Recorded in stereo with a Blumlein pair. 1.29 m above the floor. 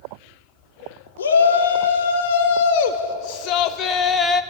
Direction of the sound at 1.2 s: 65° left.